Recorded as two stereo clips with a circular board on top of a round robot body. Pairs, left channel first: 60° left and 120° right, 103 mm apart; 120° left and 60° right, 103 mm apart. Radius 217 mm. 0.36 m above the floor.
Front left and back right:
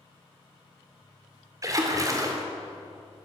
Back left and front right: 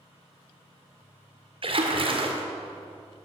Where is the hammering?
I don't hear hammering.